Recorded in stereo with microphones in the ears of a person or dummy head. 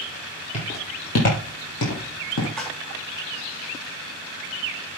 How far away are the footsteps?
About 2 m.